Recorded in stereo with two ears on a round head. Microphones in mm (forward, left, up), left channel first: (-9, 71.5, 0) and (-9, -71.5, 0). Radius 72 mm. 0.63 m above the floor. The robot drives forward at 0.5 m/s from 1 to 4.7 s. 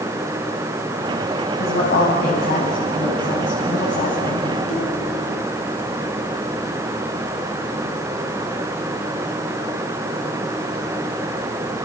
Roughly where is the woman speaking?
Left.